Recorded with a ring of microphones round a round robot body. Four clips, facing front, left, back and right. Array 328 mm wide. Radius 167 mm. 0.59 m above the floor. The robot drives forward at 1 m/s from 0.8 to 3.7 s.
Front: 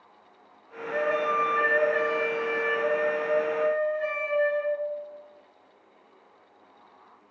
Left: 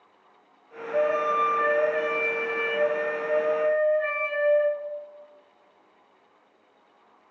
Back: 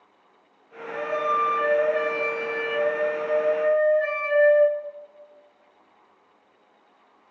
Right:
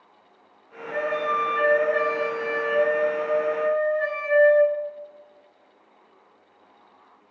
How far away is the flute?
About 8.5 m.